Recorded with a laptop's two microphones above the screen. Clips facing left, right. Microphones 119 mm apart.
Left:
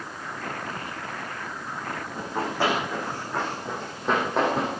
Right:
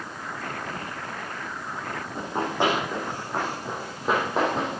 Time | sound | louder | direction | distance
2.1 | running footsteps | right 2 dB | 20° right (ahead or behind) | 4 m